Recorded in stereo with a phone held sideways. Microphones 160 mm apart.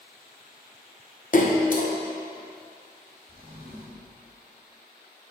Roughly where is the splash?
Left.